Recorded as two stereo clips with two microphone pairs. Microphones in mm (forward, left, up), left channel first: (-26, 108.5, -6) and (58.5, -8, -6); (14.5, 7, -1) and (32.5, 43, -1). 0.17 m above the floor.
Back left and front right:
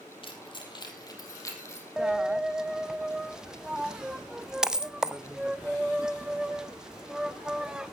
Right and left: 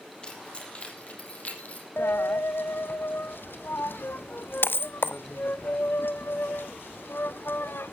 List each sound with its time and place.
0.2 s keys jangling: straight behind, 4 m; by 1.9 s 165° right, 5 m
2.0 s a dropped coin: 140° right, 0.7 m